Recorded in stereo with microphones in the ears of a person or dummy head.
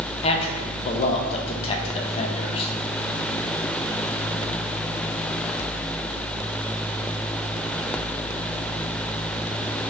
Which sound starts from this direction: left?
A man speaking, at 0.2 s.